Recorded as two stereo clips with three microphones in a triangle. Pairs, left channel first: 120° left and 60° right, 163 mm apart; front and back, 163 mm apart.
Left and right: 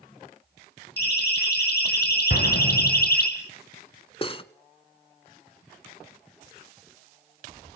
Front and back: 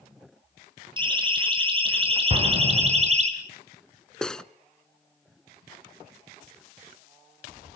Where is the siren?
120° left, 6 m; by 3.3 s 135° left, 4 m.